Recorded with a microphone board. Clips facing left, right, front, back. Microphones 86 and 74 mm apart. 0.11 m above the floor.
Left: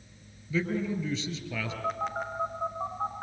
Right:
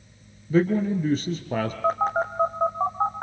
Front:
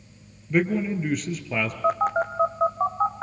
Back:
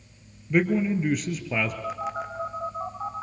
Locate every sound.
0.5 s a man speaking: 90° right, 1.8 m
1.8 s a phone buzzing: 45° right, 2.5 m